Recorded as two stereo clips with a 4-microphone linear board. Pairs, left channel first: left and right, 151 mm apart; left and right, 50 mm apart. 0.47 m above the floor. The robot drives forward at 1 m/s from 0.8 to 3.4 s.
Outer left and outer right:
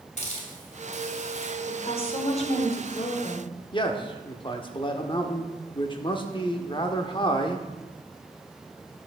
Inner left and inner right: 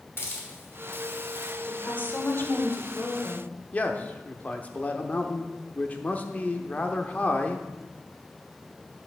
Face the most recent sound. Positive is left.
turn(degrees=35)  # may be behind; listen again after turning